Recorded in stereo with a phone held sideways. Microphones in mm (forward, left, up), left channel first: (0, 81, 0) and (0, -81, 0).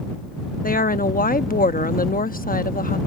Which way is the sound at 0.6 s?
60° left (ahead or behind).